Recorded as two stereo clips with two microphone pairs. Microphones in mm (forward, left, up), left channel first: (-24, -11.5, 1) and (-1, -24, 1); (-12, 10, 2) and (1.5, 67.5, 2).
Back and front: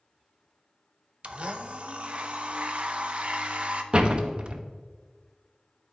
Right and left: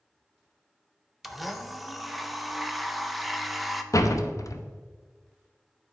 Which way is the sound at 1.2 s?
5° right.